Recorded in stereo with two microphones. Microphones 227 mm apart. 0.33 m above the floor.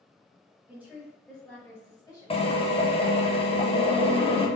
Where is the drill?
25° left (ahead or behind), 0.7 m.